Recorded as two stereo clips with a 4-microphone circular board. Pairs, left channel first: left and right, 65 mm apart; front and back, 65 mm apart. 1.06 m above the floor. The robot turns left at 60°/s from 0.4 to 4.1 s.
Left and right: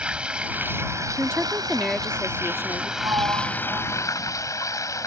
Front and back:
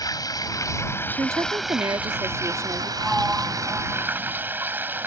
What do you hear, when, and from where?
0.0 s running water: 15° right; by 5.1 s 125° left
1.2 s a woman speaking: 135° right; by 2.9 s 120° left
3.0 s a sliding door: 90° right; by 4.4 s 160° right